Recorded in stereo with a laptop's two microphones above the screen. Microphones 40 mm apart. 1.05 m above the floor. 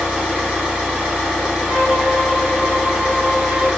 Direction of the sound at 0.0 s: 20° right (ahead or behind).